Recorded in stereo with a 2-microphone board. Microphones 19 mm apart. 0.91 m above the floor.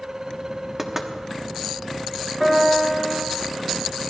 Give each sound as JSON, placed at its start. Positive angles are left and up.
{"t": 0.8, "sound": "knocking", "side_deg": -20, "distance_m": 1.2}
{"t": 2.4, "sound": "a piano", "side_deg": -10, "distance_m": 3.0}